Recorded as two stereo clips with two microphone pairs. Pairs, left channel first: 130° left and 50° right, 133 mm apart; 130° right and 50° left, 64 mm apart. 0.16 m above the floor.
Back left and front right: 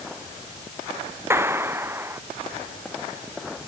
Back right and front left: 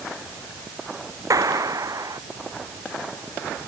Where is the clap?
20° left.